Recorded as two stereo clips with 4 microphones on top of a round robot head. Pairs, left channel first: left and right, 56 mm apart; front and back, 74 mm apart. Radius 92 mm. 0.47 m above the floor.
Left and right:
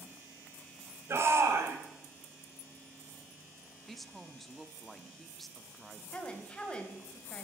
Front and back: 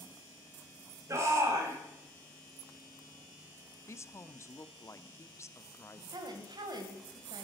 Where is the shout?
130° right, 3 m.